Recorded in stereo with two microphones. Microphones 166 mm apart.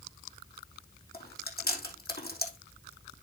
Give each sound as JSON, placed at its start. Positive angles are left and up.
{"t": 1.1, "sound": "chewing", "side_deg": 70, "distance_m": 3.0}